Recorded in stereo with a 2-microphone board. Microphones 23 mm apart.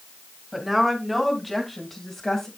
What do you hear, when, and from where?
0.5 s a woman speaking: 10° right (ahead or behind), 3 m; by 2.5 s 20° left (ahead or behind), 2 m